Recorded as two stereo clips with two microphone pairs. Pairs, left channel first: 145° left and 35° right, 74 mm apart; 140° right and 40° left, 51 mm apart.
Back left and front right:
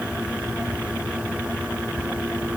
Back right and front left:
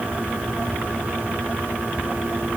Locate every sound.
Only background noise.